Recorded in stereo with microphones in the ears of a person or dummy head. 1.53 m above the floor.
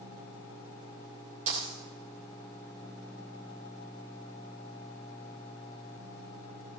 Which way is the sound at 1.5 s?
40° right (ahead or behind).